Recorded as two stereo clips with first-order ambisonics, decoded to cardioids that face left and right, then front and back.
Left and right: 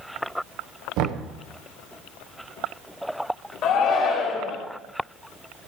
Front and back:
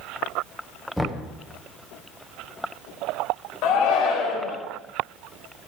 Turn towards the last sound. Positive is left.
turn(degrees=40)